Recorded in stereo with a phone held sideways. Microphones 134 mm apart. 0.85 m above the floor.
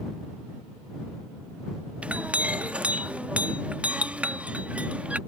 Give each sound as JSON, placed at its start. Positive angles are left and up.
{"t": 2.0, "sound": "a clink", "side_deg": -10}